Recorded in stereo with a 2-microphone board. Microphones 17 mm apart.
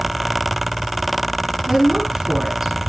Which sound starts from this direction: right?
A woman speaking, at 1.7 s.